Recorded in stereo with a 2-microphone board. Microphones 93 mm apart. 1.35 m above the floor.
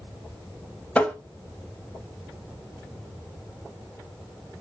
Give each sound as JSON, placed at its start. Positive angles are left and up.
{"t": 0.9, "sound": "tapping", "side_deg": 10, "distance_m": 0.6}